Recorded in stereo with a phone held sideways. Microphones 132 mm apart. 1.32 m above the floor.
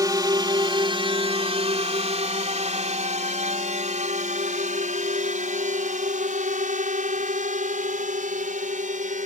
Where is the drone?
30° right (ahead or behind); by 9.3 s 75° right (ahead or behind).